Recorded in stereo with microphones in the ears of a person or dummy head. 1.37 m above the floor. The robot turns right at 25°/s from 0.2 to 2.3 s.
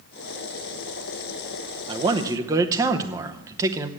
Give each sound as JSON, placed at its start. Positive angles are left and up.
{"t": 1.9, "sound": "a man speaking", "side_deg": -30, "distance_m": 0.8}